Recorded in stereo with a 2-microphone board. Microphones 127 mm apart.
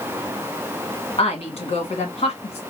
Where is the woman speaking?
55° left (ahead or behind), 1.7 m.